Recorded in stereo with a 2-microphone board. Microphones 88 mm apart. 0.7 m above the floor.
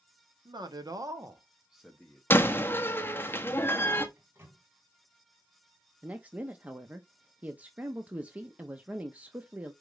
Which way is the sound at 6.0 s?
15° right (ahead or behind).